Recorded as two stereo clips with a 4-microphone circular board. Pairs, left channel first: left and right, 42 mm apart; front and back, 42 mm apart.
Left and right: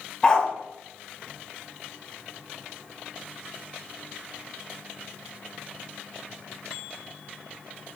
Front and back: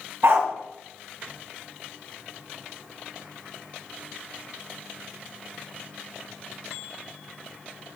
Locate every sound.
0.2 s a dog barking: 155° left, 1.0 m